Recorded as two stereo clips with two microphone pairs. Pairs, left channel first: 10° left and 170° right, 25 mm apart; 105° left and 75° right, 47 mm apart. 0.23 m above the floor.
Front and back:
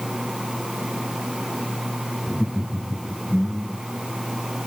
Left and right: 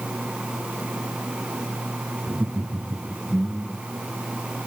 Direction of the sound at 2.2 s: 30° right.